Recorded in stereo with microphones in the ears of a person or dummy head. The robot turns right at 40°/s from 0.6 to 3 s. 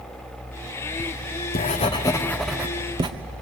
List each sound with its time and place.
1.0 s writing: 120° left, 1.1 m; by 3.1 s 160° right, 1.1 m